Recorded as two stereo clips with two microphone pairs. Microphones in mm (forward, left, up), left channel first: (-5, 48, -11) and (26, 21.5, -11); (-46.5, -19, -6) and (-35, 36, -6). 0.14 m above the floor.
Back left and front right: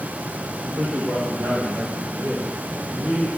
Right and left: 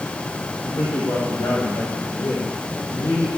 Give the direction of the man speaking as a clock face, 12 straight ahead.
3 o'clock.